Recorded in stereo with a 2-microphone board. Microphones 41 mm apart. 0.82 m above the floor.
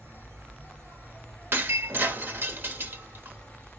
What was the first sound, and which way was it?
An insect, 70° right (ahead or behind).